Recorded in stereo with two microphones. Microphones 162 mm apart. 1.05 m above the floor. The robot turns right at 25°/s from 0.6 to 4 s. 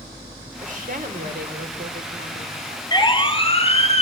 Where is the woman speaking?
125° right, 4 m; by 2.5 s 80° right, 4 m.